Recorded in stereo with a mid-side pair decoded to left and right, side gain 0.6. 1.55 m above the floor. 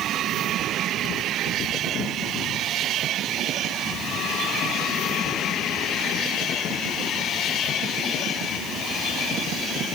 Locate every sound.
Only background noise.